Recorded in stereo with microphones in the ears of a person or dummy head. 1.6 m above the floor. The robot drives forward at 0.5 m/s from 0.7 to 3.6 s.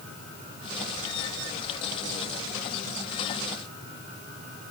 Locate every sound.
Only background noise.